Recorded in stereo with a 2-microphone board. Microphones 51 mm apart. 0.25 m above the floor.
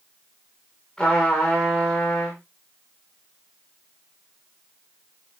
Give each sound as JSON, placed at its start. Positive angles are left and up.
{"t": 1.0, "sound": "a trumpet", "side_deg": 20, "distance_m": 8.0}